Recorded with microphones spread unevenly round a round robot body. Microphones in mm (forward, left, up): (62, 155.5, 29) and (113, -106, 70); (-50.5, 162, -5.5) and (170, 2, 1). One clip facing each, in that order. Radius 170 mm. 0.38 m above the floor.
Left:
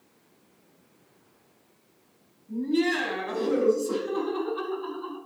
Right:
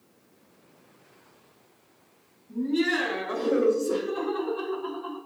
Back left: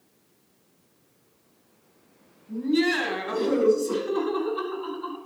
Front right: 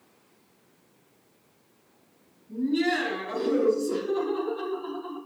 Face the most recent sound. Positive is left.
turn(degrees=130)